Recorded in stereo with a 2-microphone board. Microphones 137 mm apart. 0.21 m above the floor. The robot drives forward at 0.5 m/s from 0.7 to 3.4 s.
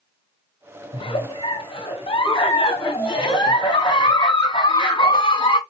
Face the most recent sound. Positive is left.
turn(degrees=35)  # may be behind; listen again after turning